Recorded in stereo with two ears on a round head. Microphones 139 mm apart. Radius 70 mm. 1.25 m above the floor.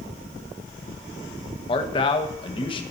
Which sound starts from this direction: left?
A man speaking, at 1.7 s.